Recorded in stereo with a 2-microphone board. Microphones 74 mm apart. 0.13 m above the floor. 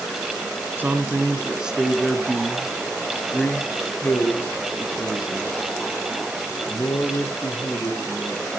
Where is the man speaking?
25° right (ahead or behind), 1.4 m; by 8.5 s 35° left (ahead or behind), 4.5 m.